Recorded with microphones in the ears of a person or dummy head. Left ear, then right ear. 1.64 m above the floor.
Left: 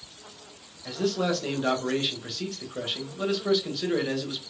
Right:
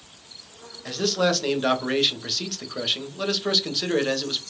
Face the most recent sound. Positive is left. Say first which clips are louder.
# right 5 dB
turn(degrees=-20)  # may be behind; listen again after turning